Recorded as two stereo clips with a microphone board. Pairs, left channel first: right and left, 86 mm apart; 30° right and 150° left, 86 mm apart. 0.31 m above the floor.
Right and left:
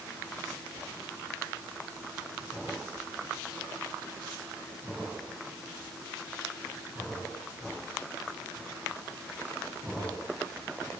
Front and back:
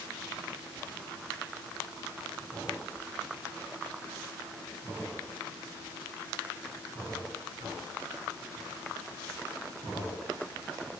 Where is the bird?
No bird in this recording.